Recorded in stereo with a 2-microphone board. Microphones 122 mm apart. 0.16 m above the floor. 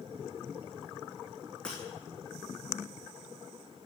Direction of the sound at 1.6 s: 10° left (ahead or behind).